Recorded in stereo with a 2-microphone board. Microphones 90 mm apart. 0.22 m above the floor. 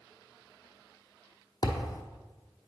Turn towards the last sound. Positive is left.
turn(degrees=40)  # may be behind; listen again after turning